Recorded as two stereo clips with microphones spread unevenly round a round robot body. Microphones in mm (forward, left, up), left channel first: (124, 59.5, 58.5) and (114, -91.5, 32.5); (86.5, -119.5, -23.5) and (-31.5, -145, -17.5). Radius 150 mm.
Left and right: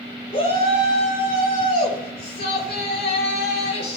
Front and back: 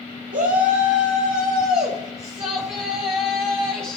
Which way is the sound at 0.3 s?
155° left.